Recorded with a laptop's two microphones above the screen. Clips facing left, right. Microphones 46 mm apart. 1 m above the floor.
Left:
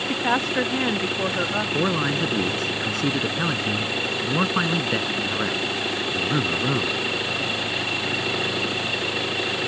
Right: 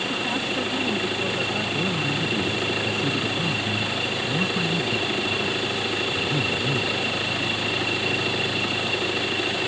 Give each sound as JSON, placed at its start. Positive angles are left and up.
{"t": 0.1, "sound": "a woman speaking", "side_deg": 65}
{"t": 1.7, "sound": "a man speaking", "side_deg": 65}